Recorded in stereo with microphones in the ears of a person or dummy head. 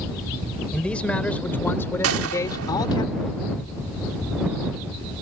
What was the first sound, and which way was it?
A man speaking, 5° left (ahead or behind).